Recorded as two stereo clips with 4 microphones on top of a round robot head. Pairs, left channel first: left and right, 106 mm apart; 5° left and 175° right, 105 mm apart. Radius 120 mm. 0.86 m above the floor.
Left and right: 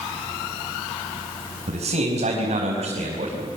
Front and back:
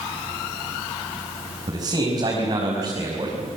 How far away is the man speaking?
About 5 m.